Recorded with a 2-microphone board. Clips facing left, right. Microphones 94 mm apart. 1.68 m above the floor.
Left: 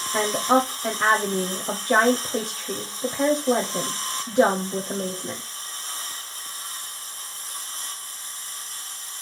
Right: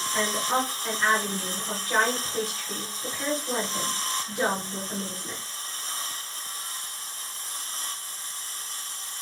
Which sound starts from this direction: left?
A woman speaking, at 0.1 s.